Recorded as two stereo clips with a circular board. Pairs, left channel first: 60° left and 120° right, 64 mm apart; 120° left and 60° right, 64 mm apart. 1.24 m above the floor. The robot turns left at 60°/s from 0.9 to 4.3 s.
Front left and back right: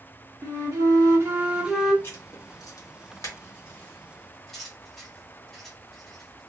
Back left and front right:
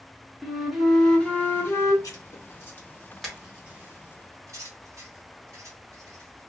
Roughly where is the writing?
Left.